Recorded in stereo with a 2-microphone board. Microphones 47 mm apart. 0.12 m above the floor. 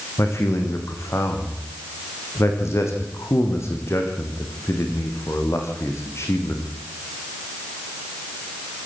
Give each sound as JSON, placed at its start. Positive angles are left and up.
{"t": 0.2, "sound": "a man speaking", "side_deg": 75, "distance_m": 7.0}